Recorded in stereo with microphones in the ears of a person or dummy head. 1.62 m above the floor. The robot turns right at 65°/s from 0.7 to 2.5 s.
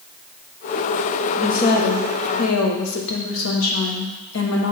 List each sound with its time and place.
1.4 s a woman speaking: 40° left, 1.1 m; by 4.7 s 115° left, 1.1 m